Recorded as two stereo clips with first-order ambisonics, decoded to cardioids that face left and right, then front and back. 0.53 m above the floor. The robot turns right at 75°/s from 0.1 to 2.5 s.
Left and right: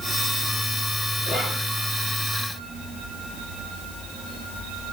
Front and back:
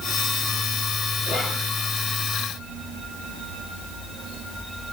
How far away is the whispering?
About 1.4 m.